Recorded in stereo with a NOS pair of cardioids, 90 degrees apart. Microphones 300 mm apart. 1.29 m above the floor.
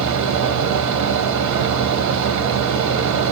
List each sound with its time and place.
0.0 s a fan: 70° right, 0.7 m